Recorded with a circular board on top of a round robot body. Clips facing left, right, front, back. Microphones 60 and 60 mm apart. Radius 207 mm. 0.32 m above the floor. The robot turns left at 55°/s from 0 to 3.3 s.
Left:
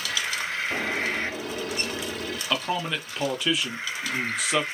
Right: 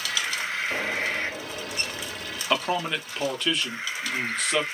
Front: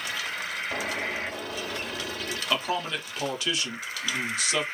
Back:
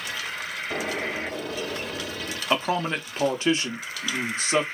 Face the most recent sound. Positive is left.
turn(degrees=175)